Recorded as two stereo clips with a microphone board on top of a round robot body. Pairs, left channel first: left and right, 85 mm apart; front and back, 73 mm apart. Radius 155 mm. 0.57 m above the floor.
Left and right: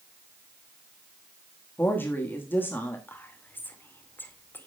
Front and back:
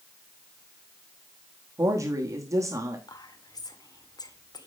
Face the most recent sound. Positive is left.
turn(degrees=25)